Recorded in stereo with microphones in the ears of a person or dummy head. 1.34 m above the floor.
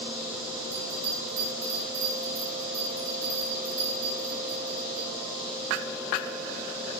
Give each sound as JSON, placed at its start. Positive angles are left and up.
{"t": 0.7, "sound": "a bell", "side_deg": -40, "distance_m": 1.9}